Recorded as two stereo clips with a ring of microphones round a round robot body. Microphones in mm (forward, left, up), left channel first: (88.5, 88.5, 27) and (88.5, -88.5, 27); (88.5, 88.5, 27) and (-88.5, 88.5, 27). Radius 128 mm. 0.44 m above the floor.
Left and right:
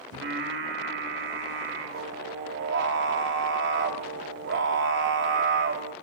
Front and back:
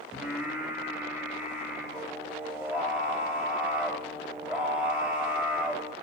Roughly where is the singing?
Right.